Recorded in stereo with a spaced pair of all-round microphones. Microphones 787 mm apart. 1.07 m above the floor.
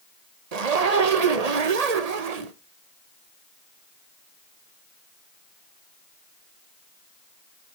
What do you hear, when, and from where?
0.5 s a zipper: 55° right (ahead or behind), 0.9 m